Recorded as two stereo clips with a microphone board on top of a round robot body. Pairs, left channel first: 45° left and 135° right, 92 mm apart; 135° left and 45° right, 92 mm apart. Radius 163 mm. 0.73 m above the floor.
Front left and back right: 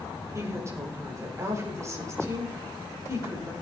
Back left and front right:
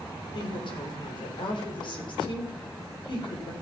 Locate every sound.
0.3 s a woman speaking: 165° left, 4 m